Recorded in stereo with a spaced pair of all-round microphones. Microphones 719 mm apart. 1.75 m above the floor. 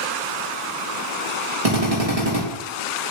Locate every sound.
1.6 s a drill: 55° right (ahead or behind), 3 m